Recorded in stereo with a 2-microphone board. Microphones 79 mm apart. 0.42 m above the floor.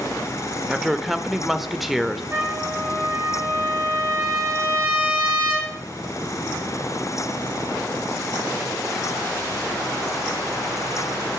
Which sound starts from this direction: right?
A trumpet, at 2.3 s.